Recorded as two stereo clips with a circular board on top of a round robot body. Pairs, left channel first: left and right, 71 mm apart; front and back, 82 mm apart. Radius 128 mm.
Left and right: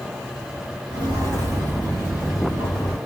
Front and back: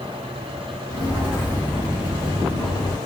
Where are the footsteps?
85° right, 1.4 m; by 3.0 s 40° left, 1.2 m.